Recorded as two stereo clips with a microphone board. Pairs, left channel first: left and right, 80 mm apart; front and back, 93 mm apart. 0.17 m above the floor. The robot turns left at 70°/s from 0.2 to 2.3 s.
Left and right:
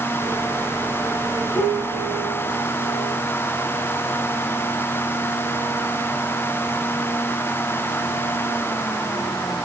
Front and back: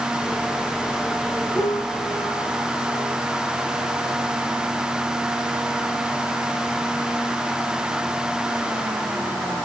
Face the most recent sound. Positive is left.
turn(degrees=-35)